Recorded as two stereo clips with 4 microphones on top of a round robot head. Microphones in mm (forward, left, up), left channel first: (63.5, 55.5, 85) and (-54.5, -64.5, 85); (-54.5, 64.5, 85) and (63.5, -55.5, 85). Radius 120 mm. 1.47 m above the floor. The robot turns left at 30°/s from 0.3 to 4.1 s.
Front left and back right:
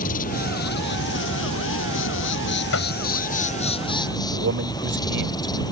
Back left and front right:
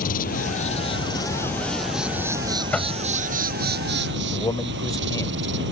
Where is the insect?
90° left; by 5.7 s 25° right.